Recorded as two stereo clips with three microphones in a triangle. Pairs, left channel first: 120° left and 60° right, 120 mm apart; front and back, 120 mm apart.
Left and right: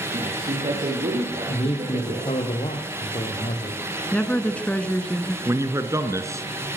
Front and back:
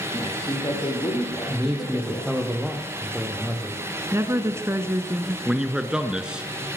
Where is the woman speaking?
175° right, 1.7 m.